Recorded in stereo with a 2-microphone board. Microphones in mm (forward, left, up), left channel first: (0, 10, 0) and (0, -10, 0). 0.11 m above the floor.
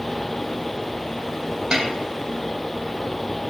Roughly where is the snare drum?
Right.